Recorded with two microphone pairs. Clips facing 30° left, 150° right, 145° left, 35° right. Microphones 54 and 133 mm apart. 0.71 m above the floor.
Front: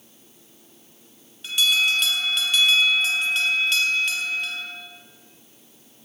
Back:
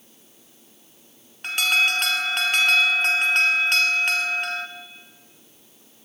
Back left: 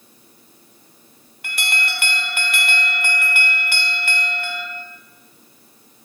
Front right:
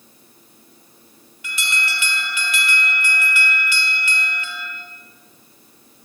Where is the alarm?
175° left, 2.5 m.